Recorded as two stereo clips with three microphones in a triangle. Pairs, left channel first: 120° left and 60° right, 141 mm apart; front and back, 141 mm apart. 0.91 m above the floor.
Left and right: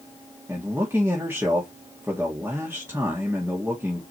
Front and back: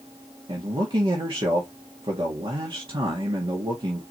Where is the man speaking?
130° right, 2.0 m.